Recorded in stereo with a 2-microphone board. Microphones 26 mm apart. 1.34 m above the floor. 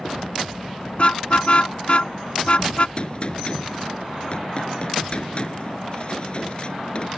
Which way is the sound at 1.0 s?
45° left (ahead or behind).